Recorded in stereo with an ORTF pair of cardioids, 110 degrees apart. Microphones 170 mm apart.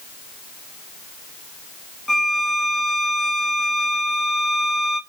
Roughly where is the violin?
Ahead.